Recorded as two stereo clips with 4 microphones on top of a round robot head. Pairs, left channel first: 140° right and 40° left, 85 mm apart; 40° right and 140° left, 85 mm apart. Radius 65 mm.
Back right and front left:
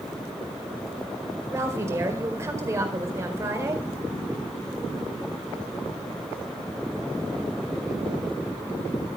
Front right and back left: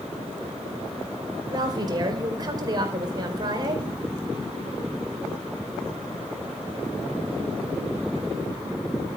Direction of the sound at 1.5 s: 100° left.